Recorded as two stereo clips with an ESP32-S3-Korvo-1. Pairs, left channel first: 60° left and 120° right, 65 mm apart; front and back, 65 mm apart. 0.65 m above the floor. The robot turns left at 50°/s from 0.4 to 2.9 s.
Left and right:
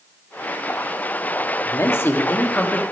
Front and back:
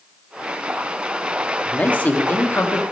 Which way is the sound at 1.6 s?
65° left.